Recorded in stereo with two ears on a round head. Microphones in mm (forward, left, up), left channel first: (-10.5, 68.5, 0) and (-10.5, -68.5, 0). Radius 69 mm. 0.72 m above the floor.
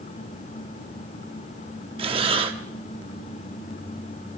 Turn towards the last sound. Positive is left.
turn(degrees=-40)  # may be behind; listen again after turning